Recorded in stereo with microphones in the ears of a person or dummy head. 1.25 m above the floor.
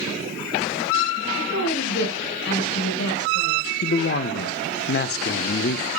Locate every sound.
1.4 s a woman speaking: 60° left (ahead or behind), 6 m
3.8 s a man speaking: 45° left (ahead or behind), 0.5 m